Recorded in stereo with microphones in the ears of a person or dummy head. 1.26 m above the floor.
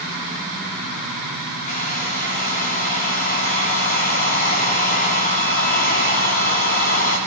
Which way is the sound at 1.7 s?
45° left (ahead or behind).